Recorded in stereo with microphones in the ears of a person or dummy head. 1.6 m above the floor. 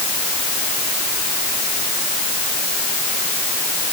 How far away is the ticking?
I don't hear ticking.